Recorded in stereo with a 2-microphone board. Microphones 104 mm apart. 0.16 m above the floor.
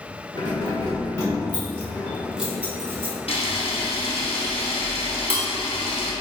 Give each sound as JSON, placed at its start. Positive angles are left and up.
{"t": 0.3, "sound": "keys jangling", "side_deg": 40, "distance_m": 1.6}
{"t": 3.3, "sound": "a camera shutter", "side_deg": 75, "distance_m": 1.1}